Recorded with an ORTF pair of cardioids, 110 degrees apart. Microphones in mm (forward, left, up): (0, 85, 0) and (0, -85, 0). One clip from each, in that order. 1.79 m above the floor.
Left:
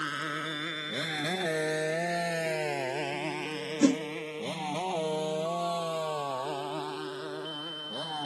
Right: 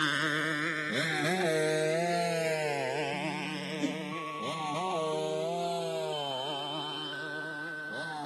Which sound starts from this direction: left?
A whoosh, at 3.8 s.